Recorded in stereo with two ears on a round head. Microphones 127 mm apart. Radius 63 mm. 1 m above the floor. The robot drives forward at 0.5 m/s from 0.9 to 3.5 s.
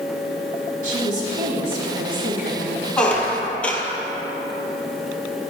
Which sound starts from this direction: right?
A woman speaking, at 0.8 s.